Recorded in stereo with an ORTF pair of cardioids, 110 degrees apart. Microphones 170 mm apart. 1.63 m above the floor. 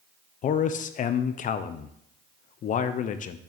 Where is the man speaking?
50° left, 0.8 m.